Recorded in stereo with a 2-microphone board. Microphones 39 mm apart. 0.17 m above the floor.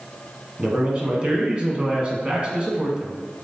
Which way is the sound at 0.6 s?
25° right (ahead or behind).